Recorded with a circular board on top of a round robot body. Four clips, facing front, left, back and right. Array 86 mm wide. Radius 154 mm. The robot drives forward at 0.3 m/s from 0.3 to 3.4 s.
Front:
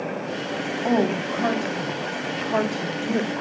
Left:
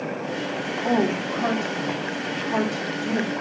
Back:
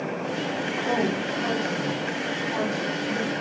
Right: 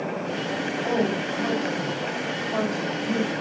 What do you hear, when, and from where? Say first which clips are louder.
0.8 s a woman speaking: left 3 dB, front 5 dB; 15° left, 3.5 m; by 3.3 s 20° left, 3 m